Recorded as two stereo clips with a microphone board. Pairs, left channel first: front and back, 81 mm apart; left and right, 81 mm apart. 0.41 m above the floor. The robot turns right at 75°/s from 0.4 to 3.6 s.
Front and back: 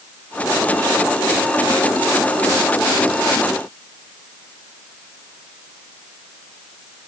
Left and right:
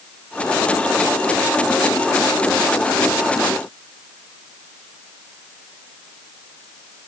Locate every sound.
Only background noise.